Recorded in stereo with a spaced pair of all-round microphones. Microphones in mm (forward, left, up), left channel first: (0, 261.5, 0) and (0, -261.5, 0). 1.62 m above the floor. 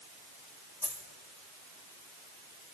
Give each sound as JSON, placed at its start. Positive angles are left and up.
{"t": 0.8, "sound": "a dropped coin", "side_deg": -5, "distance_m": 2.5}